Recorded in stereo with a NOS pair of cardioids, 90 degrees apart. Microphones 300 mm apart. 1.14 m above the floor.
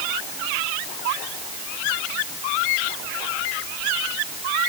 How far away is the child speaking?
No child speaking in this recording.